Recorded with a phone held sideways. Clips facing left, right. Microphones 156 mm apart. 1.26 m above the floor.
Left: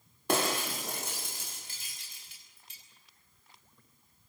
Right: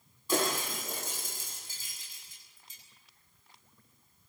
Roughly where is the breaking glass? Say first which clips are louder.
Left 1 dB; left.